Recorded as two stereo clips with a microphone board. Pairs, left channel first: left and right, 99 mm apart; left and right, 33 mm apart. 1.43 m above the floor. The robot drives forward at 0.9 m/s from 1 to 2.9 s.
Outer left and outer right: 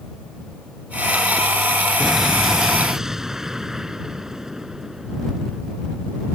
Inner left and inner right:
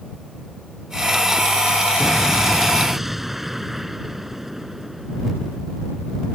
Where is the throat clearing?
I don't hear throat clearing.